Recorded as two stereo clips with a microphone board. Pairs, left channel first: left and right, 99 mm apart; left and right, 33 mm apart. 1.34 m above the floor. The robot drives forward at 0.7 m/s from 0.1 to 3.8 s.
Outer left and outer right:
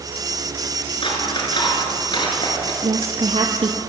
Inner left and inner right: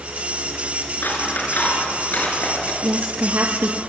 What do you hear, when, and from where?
1.0 s scissors: 60° left (ahead or behind), 5.5 m; by 2.7 s 50° left (ahead or behind), 6 m
2.8 s a woman speaking: 80° right, 2.5 m; by 3.8 s 70° right (ahead or behind), 2.5 m